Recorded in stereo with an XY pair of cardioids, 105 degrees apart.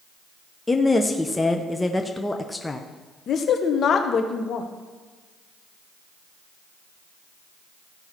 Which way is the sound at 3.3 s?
55° left.